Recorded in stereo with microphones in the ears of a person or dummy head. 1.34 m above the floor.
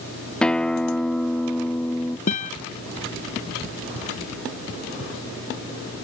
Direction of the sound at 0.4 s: 5° left (ahead or behind).